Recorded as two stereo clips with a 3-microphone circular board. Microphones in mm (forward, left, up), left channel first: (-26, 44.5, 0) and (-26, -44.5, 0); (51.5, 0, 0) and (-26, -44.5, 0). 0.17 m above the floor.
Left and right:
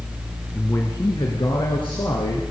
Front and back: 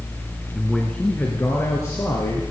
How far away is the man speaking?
About 1.5 m.